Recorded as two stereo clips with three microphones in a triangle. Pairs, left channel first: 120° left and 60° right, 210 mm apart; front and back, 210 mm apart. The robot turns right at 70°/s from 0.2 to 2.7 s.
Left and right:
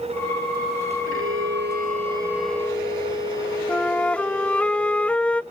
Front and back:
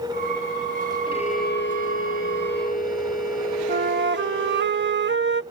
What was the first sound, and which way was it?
A violin, 70° right.